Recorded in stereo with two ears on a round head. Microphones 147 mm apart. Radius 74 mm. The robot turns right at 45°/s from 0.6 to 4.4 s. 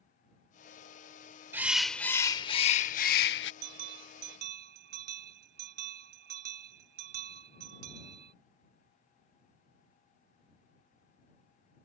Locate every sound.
1.5 s a bird: 15° right; by 3.5 s 75° left
3.6 s a bell: 105° right; by 8.3 s 70° right